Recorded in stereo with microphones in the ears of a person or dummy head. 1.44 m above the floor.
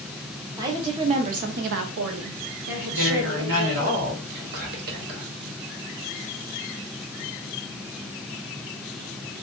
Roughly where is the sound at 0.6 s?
Right.